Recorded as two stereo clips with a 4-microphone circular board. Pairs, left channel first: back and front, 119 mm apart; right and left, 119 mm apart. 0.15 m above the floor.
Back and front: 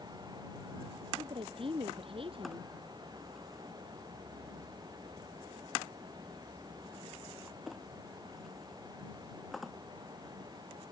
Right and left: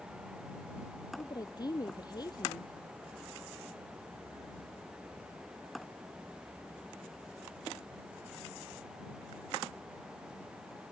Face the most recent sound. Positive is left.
turn(degrees=-35)